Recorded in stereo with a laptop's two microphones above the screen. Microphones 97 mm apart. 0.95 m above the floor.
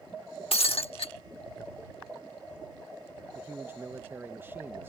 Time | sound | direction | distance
0.5 | breaking glass | 75° left (ahead or behind) | ?
3.4 | a man speaking | 20° right (ahead or behind) | ?